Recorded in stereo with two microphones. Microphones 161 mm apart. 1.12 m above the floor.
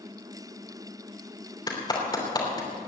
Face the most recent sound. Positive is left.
turn(degrees=25)  # may be behind; listen again after turning